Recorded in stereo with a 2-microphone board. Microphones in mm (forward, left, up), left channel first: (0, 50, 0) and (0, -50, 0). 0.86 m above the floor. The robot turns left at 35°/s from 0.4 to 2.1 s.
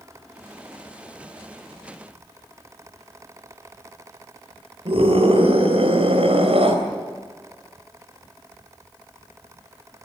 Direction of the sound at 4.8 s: 80° right.